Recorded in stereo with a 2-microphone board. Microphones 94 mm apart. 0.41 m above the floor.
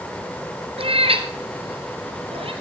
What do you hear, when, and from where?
0.8 s a cat meowing: 80° right, 2.0 m; by 2.5 s 75° right (ahead or behind), 3 m